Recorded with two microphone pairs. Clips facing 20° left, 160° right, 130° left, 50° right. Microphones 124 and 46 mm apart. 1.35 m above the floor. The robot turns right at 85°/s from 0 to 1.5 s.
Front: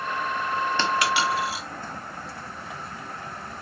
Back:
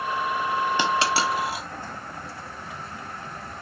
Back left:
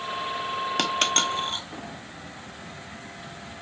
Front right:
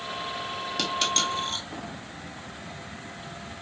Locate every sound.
0.8 s a dropped coin: 130° left, 1.2 m; by 1.6 s 170° right, 1.2 m